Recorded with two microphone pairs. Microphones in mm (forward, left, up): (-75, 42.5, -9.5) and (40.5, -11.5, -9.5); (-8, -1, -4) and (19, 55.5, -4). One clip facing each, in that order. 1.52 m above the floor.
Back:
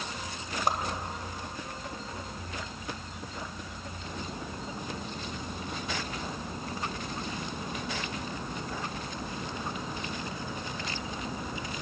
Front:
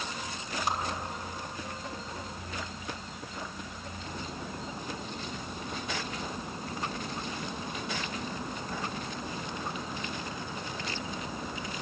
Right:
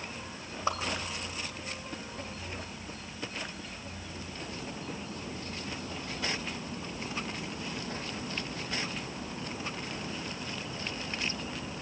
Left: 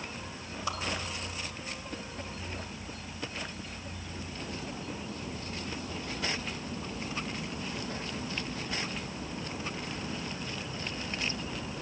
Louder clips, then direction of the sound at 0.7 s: Back 3 dB, right 4 dB; 170° right.